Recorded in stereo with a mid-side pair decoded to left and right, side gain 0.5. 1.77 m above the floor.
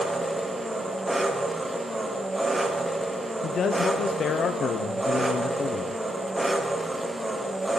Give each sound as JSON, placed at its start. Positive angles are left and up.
{"t": 0.0, "sound": "an engine running", "azimuth_deg": -5, "distance_m": 1.5}
{"t": 3.4, "sound": "a man speaking", "azimuth_deg": 50, "distance_m": 0.8}